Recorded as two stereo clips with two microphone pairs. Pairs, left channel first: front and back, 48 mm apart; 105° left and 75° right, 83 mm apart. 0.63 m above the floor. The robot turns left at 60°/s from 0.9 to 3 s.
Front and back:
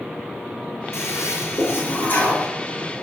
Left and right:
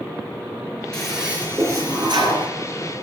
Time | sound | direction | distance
0.9 | a toilet flushing | 25° left | 5 m